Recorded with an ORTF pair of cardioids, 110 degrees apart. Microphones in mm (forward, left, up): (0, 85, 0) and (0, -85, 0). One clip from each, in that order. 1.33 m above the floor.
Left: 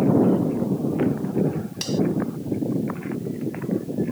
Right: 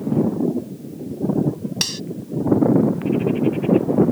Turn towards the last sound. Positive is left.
turn(degrees=-50)